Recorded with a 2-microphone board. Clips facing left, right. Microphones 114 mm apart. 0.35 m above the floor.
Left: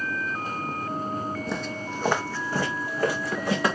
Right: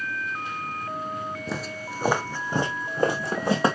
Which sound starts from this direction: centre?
Footsteps, at 1.5 s.